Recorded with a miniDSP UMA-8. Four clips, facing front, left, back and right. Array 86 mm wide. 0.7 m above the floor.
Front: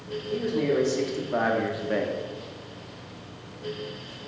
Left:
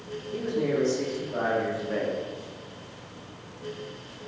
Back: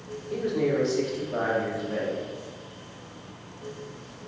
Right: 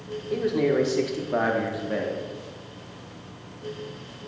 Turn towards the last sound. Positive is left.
turn(degrees=5)